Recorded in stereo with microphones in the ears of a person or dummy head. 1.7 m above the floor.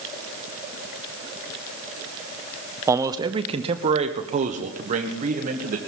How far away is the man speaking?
About 0.6 m.